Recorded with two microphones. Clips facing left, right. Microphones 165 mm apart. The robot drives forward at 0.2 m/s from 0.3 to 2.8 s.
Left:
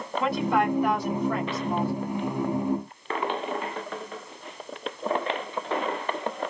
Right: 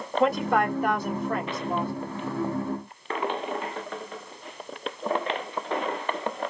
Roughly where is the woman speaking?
Right.